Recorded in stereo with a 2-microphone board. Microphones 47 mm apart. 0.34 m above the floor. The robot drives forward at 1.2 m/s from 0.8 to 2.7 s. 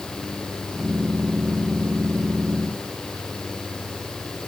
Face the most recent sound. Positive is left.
No sound to turn to.